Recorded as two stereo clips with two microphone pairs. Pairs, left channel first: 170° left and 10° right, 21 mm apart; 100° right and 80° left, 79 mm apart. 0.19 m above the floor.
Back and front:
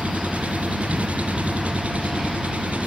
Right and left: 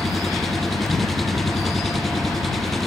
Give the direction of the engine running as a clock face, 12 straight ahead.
12 o'clock.